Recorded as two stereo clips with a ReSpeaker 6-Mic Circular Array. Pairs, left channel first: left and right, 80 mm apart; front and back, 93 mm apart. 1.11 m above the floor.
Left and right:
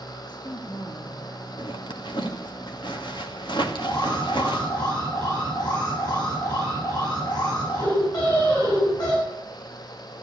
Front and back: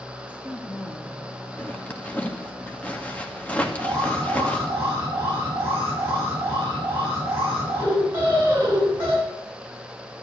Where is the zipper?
75° left, 2.0 m.